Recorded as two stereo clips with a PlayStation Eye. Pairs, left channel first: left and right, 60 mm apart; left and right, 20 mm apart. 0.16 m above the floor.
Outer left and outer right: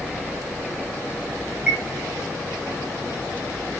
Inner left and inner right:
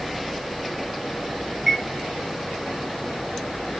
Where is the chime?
20° right (ahead or behind), 3 m.